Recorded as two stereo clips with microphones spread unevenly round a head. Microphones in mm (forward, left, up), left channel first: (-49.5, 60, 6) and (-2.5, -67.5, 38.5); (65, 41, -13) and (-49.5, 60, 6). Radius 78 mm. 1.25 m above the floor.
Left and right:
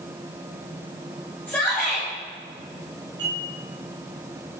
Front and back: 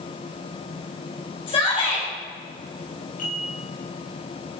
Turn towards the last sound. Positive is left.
turn(degrees=-5)